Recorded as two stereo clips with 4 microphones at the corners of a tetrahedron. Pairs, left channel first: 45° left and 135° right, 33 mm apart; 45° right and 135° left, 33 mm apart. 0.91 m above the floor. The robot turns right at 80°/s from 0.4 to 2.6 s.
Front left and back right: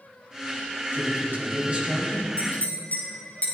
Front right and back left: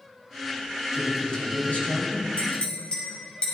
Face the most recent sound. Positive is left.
turn(degrees=10)